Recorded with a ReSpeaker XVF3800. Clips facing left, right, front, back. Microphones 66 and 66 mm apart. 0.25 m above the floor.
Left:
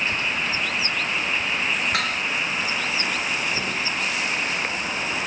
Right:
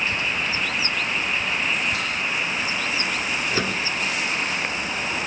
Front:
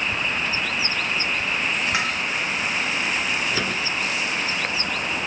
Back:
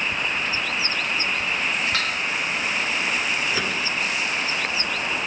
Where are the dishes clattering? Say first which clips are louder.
Left 2 dB, front 1 dB; 75° left, 2.5 m.